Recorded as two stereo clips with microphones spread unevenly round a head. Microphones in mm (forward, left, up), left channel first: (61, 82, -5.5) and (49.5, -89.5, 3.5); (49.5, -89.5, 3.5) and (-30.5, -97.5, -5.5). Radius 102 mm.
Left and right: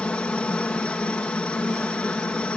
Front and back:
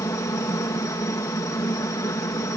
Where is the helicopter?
5° left.